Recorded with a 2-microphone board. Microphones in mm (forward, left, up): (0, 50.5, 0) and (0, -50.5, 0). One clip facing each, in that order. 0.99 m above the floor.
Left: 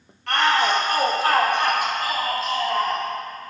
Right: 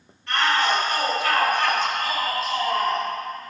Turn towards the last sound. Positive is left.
turn(degrees=-10)  # may be behind; listen again after turning